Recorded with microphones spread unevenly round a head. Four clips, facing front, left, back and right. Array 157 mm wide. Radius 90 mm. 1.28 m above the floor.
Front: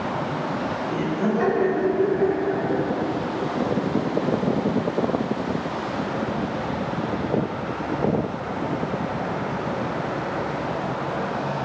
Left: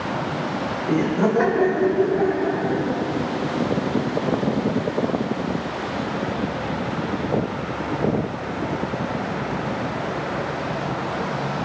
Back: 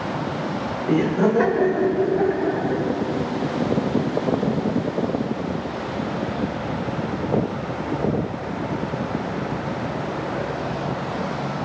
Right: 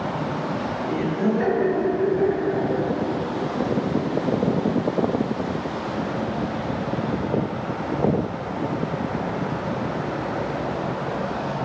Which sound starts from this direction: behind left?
Laughter, at 0.9 s.